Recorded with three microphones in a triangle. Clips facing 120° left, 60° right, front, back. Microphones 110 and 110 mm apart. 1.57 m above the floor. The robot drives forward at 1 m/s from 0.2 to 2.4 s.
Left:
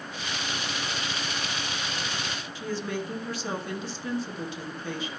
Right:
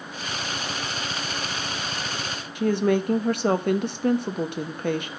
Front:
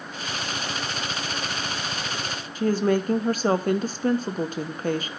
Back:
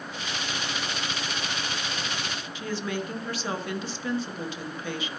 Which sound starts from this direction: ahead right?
A woman speaking, at 2.5 s.